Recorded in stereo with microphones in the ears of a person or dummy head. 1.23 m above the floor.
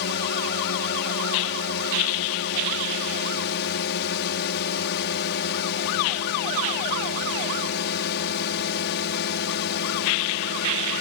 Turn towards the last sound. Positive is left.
turn(degrees=60)  # may be behind; listen again after turning